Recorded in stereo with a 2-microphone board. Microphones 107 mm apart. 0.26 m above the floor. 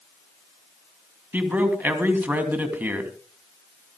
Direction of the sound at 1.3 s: 15° right (ahead or behind).